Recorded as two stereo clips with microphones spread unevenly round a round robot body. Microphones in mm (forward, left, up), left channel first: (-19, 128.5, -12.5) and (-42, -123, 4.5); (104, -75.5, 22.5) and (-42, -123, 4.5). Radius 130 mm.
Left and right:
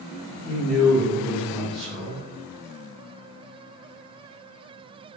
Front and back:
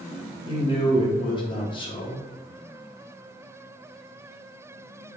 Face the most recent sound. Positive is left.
turn(degrees=5)